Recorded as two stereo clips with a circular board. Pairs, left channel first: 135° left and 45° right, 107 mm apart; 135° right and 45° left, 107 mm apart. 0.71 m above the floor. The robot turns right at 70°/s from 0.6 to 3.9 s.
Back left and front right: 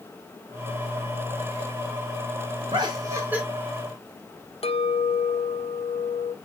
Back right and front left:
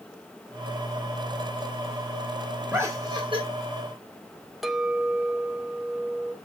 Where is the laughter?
20° right, 1.9 m; by 3.4 s 30° left, 1.9 m.